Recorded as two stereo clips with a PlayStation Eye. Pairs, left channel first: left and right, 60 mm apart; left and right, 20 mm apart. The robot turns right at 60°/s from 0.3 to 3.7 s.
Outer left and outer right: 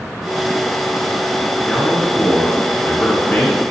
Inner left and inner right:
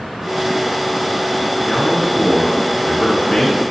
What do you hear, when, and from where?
1.7 s a man speaking: 10° right, 1.8 m; by 3.7 s 110° left, 1.8 m